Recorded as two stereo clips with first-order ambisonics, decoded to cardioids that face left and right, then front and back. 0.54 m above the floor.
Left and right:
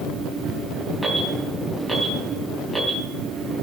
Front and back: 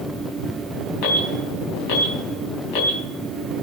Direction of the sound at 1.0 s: Straight ahead.